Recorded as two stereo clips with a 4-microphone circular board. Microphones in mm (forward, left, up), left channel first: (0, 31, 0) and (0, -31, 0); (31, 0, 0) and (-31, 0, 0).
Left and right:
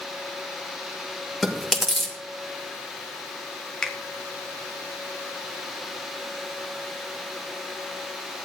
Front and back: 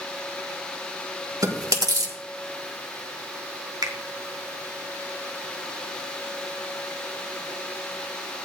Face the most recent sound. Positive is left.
turn(degrees=170)